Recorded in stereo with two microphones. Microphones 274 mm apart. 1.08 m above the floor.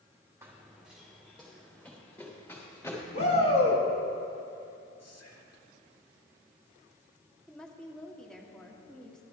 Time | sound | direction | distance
0.4 | running footsteps | 10° right (ahead or behind) | 2.5 m
3.1 | a shout | 55° left (ahead or behind) | 3 m
5.0 | whispering | 65° left (ahead or behind) | 1.9 m
7.5 | a woman speaking | centre (ahead or behind) | 1.8 m